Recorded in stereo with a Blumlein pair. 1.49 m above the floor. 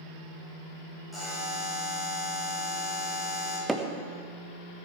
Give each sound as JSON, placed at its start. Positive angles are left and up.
{"t": 1.1, "sound": "a buzzer", "azimuth_deg": -5, "distance_m": 5.5}
{"t": 3.7, "sound": "hammering", "azimuth_deg": -5, "distance_m": 1.2}